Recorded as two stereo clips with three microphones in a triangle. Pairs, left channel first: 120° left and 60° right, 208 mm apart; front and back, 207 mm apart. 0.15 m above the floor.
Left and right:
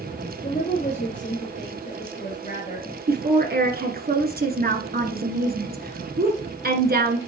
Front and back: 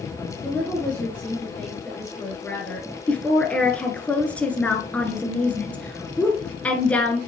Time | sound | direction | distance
0.4 | a woman speaking | 80° left | 3 m
3.1 | a woman speaking | 80° right | 1.9 m